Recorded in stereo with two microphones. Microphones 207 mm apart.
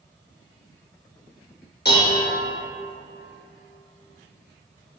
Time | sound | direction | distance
1.9 | dishes clattering | 55° left (ahead or behind) | 0.6 m